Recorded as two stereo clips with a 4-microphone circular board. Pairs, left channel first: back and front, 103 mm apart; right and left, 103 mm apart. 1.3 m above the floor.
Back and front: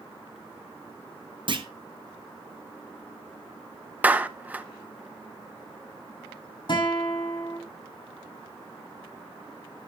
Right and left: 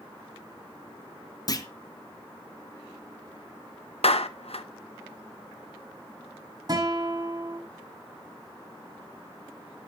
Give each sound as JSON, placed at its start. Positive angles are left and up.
{"t": 1.5, "sound": "a clunk", "azimuth_deg": -40, "distance_m": 1.1}
{"t": 4.0, "sound": "a clap", "azimuth_deg": -75, "distance_m": 0.8}
{"t": 6.7, "sound": "a guitar", "azimuth_deg": 140, "distance_m": 8.0}